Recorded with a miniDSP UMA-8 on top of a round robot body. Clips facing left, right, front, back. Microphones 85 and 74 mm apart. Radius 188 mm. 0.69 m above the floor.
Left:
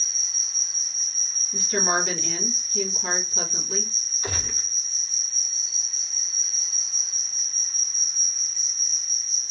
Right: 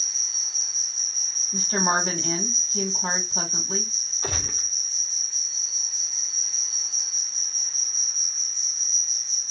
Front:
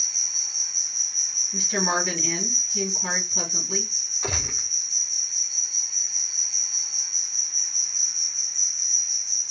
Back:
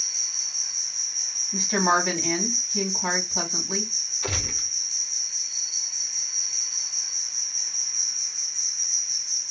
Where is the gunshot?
60° right, 2.0 m.